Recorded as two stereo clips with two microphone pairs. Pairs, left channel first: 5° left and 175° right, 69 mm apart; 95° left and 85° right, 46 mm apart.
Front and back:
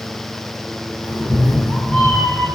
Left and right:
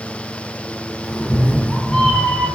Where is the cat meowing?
50° left, 0.9 m.